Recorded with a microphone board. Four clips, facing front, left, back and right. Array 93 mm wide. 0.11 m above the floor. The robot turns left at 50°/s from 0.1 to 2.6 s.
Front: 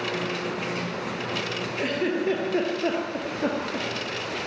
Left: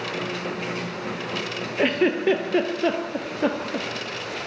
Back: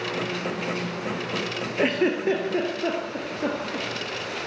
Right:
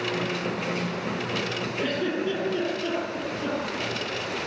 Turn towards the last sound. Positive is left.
turn(degrees=85)